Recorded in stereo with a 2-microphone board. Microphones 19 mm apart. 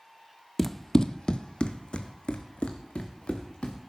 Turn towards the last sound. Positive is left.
turn(degrees=80)